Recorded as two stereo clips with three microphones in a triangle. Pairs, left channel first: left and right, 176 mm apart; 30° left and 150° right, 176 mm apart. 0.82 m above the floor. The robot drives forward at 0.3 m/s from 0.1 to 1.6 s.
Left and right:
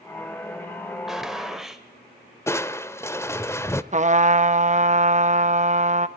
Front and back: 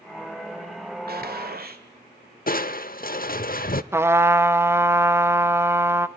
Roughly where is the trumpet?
Right.